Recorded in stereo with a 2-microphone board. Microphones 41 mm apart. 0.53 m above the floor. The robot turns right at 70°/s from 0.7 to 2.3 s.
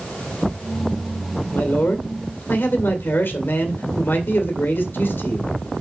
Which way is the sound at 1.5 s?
40° left.